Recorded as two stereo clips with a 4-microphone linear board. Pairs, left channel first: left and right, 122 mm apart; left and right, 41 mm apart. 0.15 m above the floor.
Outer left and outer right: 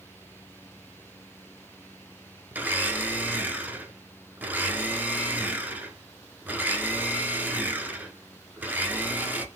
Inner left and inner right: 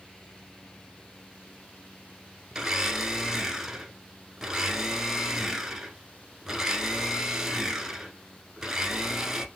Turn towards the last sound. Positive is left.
turn(degrees=-15)  # may be behind; listen again after turning